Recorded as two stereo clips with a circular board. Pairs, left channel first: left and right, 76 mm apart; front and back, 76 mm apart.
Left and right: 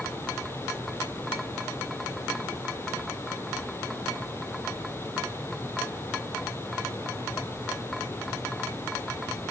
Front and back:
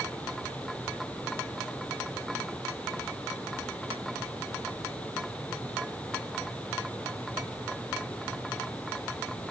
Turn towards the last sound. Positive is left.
No sound to turn to.